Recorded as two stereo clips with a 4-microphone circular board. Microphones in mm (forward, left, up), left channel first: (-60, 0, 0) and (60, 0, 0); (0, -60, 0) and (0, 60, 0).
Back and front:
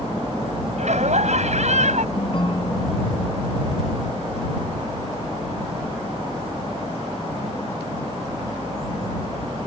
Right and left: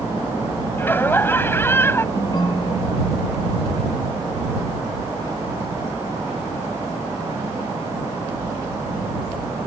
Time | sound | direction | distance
0.8 | laughter | 20° right | ?
2.1 | a ringtone | 140° right | ?